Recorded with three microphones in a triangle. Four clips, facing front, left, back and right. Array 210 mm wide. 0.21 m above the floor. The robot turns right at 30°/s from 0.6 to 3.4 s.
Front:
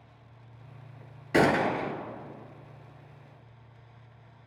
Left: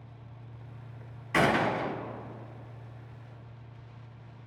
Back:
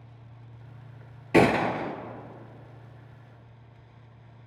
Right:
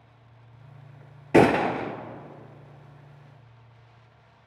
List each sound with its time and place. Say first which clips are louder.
1.3 s a gunshot: right 7 dB, back 2 dB; 100° right, 0.7 m; by 1.9 s 85° right, 0.7 m